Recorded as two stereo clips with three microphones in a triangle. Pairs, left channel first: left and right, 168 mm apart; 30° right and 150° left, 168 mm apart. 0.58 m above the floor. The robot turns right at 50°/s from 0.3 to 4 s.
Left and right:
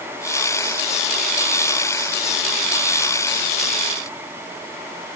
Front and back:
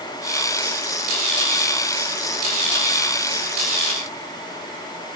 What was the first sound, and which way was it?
Only background noise.